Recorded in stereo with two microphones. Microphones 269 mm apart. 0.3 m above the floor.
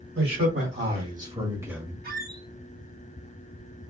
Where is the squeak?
35° right (ahead or behind), 0.7 m.